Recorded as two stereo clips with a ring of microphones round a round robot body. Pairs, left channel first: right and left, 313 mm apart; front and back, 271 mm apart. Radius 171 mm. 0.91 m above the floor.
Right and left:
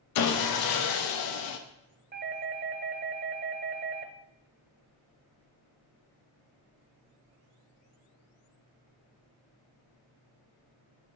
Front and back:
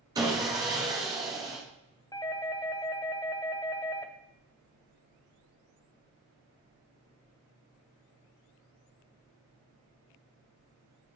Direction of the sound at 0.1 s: 100° right.